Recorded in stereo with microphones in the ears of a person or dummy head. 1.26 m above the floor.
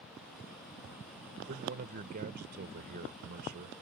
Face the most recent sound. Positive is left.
turn(degrees=-50)  # may be behind; listen again after turning